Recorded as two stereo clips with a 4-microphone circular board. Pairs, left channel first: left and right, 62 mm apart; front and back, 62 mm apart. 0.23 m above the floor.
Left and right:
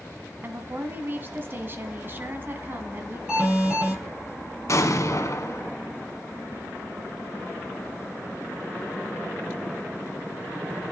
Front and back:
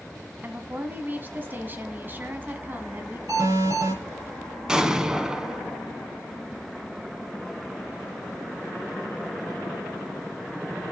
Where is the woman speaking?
135° right, 1.7 m.